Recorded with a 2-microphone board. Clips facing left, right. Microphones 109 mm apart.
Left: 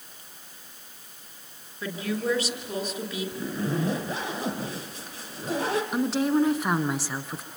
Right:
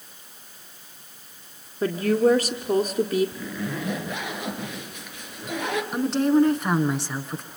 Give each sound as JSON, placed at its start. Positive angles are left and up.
{"t": 1.8, "sound": "a woman speaking", "side_deg": -45, "distance_m": 1.7}
{"t": 3.4, "sound": "a zipper", "side_deg": 35, "distance_m": 2.5}
{"t": 5.9, "sound": "a woman speaking", "side_deg": 0, "distance_m": 1.6}